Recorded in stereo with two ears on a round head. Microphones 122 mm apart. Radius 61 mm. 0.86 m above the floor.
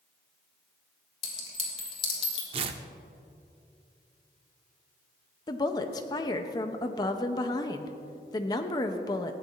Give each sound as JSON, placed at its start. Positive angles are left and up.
{"t": 1.2, "sound": "a clink", "side_deg": 40, "distance_m": 3.0}
{"t": 2.5, "sound": "tearing paper", "side_deg": -40, "distance_m": 0.8}
{"t": 5.5, "sound": "a woman speaking", "side_deg": 30, "distance_m": 0.8}